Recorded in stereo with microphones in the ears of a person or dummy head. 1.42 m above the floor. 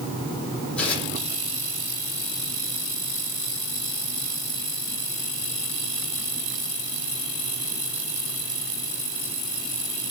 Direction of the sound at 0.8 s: 5° left (ahead or behind).